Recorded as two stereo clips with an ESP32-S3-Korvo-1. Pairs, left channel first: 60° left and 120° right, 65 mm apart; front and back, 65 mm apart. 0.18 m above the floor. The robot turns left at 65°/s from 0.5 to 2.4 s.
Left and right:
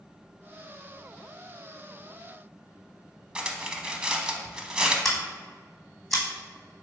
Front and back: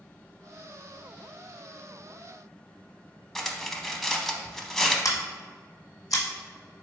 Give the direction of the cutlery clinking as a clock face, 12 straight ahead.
2 o'clock.